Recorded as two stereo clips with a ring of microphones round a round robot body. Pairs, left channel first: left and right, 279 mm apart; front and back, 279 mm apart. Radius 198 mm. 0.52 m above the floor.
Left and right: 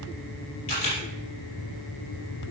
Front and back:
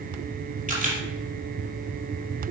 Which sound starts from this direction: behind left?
A camera shutter, at 0.7 s.